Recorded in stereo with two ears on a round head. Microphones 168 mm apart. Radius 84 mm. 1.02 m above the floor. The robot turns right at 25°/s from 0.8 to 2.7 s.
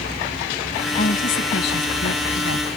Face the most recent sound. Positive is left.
turn(degrees=85)